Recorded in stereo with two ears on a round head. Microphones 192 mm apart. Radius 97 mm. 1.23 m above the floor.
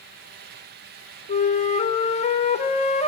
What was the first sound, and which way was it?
A flute, 30° left (ahead or behind).